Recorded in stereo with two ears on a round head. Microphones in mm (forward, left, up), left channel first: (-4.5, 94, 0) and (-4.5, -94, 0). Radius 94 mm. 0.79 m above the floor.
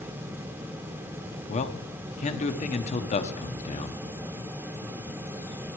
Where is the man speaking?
35° left (ahead or behind), 1.1 m.